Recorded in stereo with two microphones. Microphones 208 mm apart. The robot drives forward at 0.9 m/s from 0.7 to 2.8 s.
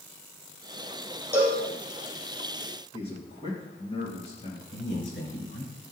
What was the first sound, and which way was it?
A cowbell, 10° right (ahead or behind).